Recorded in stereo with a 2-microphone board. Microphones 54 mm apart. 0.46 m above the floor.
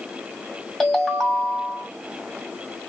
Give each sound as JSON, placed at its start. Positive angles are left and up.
{"t": 0.8, "sound": "a ringtone", "side_deg": 5, "distance_m": 1.6}